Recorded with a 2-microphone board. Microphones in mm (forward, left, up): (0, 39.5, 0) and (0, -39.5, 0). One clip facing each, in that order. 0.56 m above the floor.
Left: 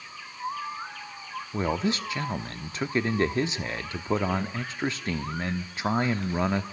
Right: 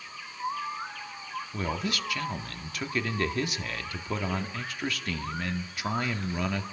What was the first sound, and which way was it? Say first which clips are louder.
A man speaking: left 6 dB; 25° left (ahead or behind).